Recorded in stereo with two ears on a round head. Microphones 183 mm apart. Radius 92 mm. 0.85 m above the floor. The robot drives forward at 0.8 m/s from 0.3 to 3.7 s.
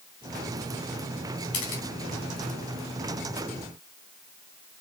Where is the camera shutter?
80° left, 3 m.